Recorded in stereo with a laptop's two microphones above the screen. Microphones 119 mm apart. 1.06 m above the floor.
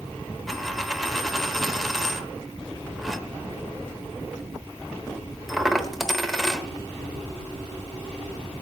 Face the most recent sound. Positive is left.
turn(degrees=0)  # may be behind; listen again after turning